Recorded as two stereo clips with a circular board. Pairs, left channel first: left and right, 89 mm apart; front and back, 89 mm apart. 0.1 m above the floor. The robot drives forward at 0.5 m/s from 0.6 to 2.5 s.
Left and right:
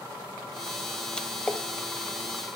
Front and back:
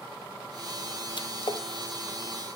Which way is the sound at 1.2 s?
10° left.